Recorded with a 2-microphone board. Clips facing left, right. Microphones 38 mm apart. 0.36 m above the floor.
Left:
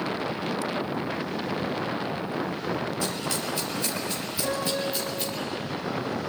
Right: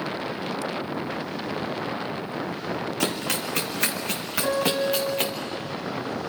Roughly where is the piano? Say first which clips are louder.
Right 5 dB; centre.